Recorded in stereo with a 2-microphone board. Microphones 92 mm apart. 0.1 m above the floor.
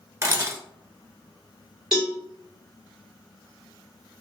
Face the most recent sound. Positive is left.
turn(degrees=-10)  # may be behind; listen again after turning